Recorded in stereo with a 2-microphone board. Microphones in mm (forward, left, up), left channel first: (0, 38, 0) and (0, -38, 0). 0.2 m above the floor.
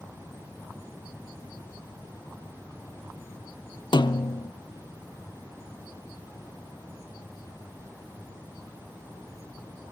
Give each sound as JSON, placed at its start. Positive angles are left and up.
{"t": 3.9, "sound": "a snare drum", "side_deg": 75, "distance_m": 0.9}